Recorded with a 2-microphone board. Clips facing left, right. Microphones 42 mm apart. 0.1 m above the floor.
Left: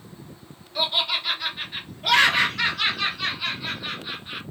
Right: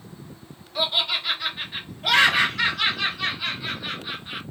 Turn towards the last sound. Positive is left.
turn(degrees=-5)  # may be behind; listen again after turning